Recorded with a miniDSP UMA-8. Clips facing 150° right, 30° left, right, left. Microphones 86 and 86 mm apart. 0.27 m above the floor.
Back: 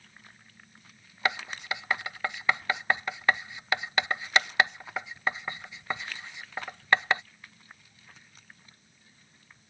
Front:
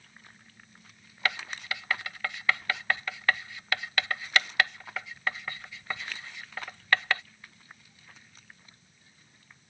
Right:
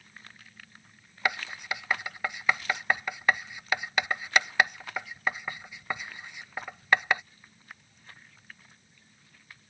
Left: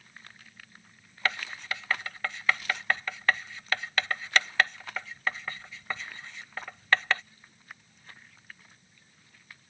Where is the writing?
140° right.